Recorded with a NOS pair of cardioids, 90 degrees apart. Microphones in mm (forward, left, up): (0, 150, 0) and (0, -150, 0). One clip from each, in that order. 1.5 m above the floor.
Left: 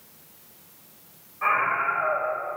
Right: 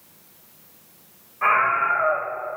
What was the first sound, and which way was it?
A scream, 35° right.